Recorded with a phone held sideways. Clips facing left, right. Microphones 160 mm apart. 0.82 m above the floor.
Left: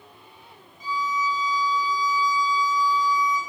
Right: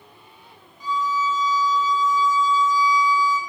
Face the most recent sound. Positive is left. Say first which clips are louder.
# right 3 dB
turn(degrees=-70)  # may be behind; listen again after turning